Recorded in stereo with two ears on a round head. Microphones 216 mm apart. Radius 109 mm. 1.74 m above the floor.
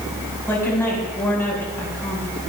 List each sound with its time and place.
0.5 s a woman speaking: 10° left (ahead or behind), 5 m